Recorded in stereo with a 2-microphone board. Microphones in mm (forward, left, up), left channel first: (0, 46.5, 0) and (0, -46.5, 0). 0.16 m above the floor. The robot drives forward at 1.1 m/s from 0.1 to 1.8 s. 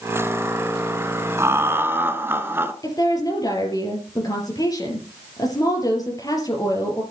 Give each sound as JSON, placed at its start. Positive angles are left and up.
{"t": 1.4, "sound": "laughter", "side_deg": -30, "distance_m": 1.4}
{"t": 2.8, "sound": "a woman speaking", "side_deg": 40, "distance_m": 4.0}